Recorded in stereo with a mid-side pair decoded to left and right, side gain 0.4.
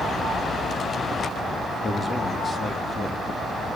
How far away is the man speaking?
About 3 m.